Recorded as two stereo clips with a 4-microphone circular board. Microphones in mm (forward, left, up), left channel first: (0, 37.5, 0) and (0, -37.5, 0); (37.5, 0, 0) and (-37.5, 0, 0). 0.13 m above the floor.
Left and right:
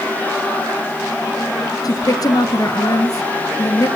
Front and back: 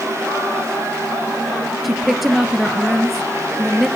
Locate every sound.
1.8 s a woman speaking: 90° left, 1.8 m